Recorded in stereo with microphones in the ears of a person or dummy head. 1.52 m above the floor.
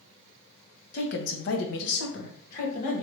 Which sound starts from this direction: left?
A woman speaking, at 0.9 s.